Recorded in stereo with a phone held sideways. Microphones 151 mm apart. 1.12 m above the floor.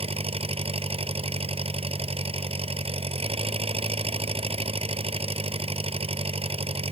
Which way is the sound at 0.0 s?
40° right (ahead or behind).